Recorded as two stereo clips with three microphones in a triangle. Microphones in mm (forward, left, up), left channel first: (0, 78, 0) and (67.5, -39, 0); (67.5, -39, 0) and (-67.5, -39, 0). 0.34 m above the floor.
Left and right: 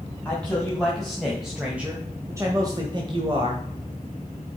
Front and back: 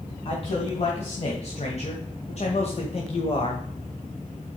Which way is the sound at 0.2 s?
40° left.